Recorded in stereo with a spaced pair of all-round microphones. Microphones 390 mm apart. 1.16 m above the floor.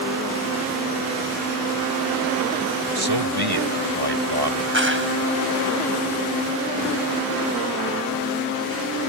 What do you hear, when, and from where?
3.0 s a man speaking: 85° right
4.7 s a clap: 30° right (ahead or behind)